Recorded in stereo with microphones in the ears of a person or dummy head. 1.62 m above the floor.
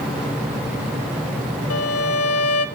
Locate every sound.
1.7 s a violin: 80° left, 1.5 m